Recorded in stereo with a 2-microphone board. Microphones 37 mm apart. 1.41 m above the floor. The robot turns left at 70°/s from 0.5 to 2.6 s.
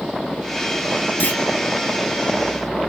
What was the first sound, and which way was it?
A clunk, 80° left.